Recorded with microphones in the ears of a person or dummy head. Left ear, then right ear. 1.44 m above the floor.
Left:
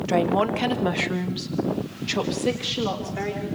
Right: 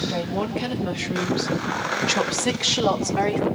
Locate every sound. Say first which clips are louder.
0.1 s a woman speaking: left 5 dB; 55° left (ahead or behind), 3 m; by 3.5 s 40° right (ahead or behind), 4 m